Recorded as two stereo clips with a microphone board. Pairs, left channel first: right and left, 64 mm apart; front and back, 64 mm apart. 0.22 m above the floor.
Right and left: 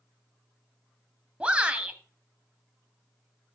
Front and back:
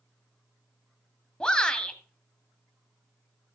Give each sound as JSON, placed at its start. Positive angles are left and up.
{"t": 1.4, "sound": "a shout", "azimuth_deg": 55, "distance_m": 1.1}